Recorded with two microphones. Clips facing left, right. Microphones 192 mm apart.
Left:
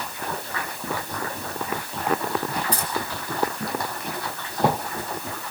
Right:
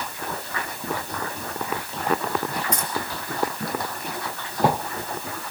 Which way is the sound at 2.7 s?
35° left (ahead or behind).